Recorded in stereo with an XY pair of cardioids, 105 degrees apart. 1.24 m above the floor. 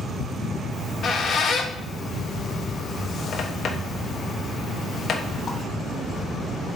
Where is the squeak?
55° left, 1.1 m.